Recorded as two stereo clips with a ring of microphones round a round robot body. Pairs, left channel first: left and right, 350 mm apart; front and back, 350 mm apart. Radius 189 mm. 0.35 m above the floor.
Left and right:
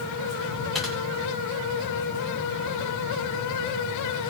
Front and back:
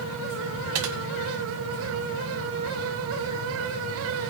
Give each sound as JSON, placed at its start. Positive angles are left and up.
{"t": 0.8, "sound": "typing on a keyboard", "azimuth_deg": 180, "distance_m": 1.9}